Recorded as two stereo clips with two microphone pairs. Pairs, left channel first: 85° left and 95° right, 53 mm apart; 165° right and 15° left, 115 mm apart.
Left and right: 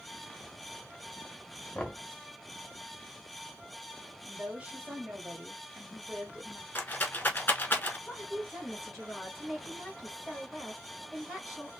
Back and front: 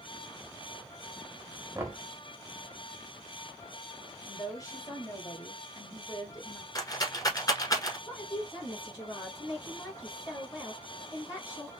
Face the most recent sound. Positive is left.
turn(degrees=175)